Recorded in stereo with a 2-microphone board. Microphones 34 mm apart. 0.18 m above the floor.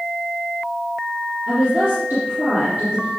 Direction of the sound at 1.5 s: 60° right (ahead or behind).